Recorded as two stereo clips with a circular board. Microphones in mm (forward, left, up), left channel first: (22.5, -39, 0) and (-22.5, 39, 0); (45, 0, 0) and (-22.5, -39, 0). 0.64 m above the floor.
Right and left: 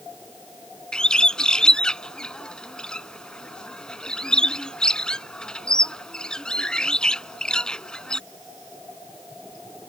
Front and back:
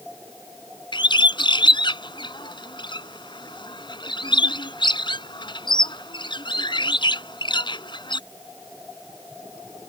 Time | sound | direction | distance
0.9 | a bird | 20° left | ?